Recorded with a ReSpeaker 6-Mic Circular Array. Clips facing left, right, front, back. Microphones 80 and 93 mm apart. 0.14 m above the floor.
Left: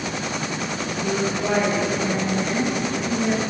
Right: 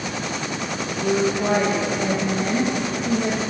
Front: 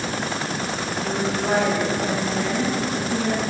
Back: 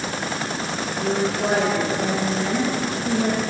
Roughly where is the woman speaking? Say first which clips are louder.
Right 4 dB, back 3 dB; behind right.